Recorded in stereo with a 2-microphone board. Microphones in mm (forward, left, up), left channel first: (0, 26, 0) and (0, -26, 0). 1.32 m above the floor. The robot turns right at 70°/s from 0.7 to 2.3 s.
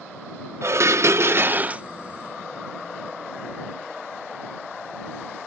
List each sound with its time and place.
0.6 s dishes clattering: 105° right; by 1.8 s 25° right